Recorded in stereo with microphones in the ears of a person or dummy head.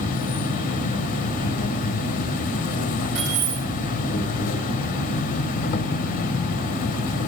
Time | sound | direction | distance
0.0 | an insect | 45° left (ahead or behind) | 0.9 m
3.1 | keys jangling | 75° right (ahead or behind) | 4 m